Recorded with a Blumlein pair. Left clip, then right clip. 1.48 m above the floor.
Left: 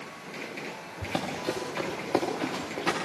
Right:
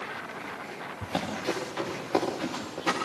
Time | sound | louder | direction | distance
1.0 | running footsteps | even | 5° left | 8 m